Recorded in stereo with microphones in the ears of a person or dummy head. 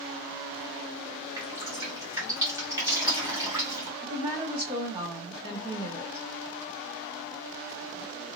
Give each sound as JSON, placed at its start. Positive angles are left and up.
{"t": 1.4, "sound": "dripping", "side_deg": -15, "distance_m": 1.0}
{"t": 4.0, "sound": "a woman speaking", "side_deg": -20, "distance_m": 0.7}